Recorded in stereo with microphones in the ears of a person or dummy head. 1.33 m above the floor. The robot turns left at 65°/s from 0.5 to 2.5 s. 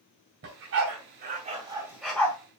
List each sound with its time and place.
0.4 s a dog barking: 65° right (ahead or behind), 2.5 m; by 2.4 s 15° left (ahead or behind), 2.5 m